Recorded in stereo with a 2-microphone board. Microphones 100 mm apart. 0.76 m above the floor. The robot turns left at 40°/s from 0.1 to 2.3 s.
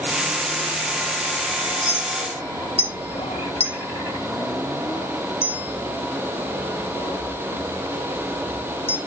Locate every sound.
1.9 s a clink: 60° left (ahead or behind), 2 m; by 9.0 s 75° left (ahead or behind), 2 m